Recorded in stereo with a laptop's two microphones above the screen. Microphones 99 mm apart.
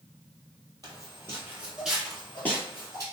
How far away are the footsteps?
About 1.4 m.